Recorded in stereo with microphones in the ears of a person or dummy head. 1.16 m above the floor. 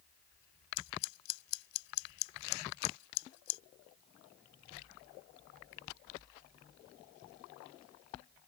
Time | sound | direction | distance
0.8 | scissors | 80° left | ?